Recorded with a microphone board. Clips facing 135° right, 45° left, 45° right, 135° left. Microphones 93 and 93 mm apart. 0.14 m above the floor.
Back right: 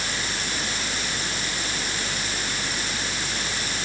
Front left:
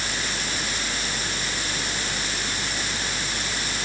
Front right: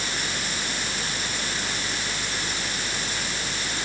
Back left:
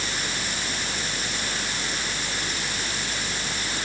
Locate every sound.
Only background noise.